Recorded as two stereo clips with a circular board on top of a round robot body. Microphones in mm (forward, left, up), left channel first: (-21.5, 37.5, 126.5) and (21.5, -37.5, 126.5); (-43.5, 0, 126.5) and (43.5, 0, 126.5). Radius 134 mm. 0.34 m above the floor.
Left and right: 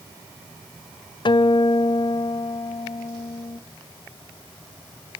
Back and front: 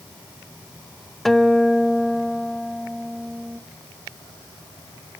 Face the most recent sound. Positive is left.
turn(degrees=95)